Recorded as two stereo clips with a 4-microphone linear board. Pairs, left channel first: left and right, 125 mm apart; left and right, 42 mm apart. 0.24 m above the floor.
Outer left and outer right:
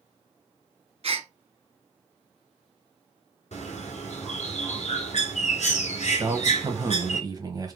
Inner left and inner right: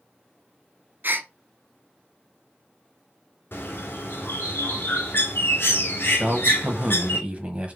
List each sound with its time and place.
1.0 s a gasp: 55° right (ahead or behind), 0.7 m
3.5 s a bird: 65° left (ahead or behind), 1.5 m
6.2 s a man speaking: 30° right (ahead or behind), 1.1 m